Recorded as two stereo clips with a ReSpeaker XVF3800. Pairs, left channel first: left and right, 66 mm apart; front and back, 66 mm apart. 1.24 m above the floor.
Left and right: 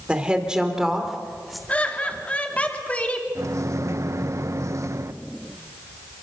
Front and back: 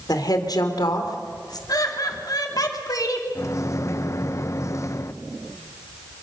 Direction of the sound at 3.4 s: 45° right.